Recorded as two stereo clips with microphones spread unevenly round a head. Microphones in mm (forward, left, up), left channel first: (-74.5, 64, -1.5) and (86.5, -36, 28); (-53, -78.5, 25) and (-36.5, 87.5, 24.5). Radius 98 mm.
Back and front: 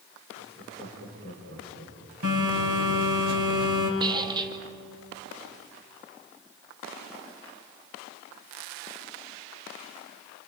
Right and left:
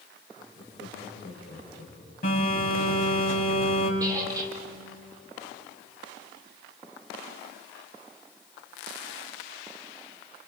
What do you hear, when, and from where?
0.4 s laughter: 25° right, 6 m
2.2 s a phone buzzing: 45° right, 6 m
4.0 s a squeak: 15° left, 2 m